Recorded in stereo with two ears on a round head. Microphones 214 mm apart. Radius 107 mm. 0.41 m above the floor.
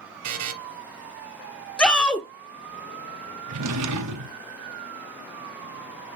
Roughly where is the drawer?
Right.